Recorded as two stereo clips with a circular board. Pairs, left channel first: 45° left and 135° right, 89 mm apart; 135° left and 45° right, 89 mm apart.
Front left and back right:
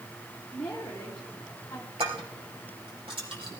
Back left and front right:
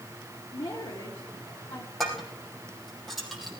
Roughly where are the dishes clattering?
Behind right.